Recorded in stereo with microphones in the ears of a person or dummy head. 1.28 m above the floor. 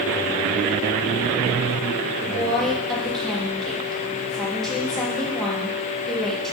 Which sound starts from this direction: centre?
A woman speaking, at 2.2 s.